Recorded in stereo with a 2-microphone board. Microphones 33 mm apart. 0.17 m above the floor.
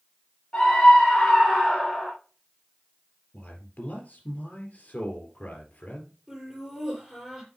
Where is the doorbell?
I don't hear a doorbell.